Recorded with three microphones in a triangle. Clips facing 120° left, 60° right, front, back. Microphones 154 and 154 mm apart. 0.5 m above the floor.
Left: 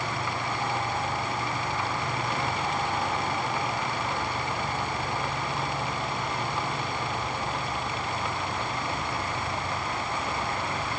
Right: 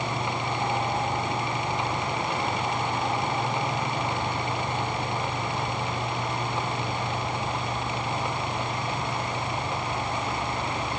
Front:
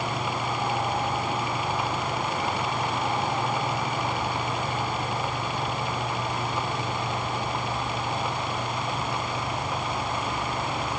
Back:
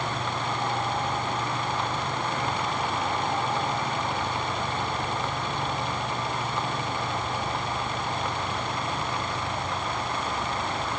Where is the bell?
I don't hear a bell.